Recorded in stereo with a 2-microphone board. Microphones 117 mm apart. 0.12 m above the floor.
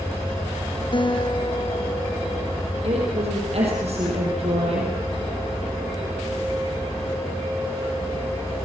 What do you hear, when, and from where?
0.9 s a guitar: 45° left (ahead or behind), 1.4 m
2.8 s a woman speaking: 60° right (ahead or behind), 5 m